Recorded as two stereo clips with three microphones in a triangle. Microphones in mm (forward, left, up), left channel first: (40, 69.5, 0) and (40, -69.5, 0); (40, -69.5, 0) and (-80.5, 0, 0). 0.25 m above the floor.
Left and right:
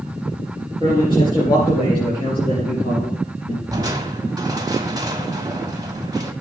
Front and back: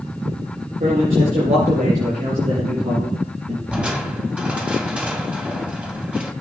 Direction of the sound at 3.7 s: 135° right.